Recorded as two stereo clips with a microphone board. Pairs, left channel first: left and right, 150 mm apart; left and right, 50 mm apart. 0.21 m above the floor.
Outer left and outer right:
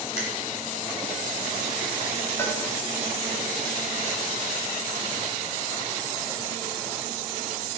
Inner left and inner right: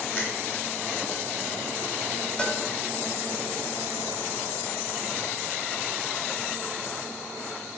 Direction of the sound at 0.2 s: 45° left (ahead or behind).